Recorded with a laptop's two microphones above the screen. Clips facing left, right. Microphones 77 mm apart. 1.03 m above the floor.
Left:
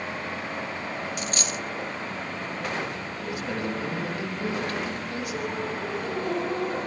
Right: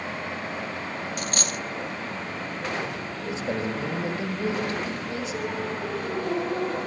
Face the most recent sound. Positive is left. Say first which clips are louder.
# right 2 dB
turn(degrees=-25)  # may be behind; listen again after turning